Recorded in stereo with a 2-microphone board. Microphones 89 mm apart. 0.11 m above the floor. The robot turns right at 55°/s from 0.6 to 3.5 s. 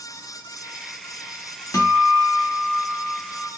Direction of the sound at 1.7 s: 110° left.